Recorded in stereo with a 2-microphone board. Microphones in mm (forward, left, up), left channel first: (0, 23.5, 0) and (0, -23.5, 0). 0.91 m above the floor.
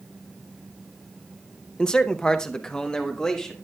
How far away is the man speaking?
About 0.5 m.